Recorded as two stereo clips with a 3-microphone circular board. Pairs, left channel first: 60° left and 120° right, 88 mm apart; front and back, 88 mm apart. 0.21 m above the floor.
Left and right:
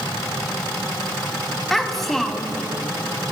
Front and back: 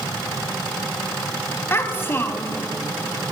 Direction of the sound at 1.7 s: 25° right.